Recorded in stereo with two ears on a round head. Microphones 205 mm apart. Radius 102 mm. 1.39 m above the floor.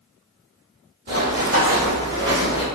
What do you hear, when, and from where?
1.1 s running footsteps: 50° right (ahead or behind), 2.0 m; by 2.6 s 5° right (ahead or behind), 1.4 m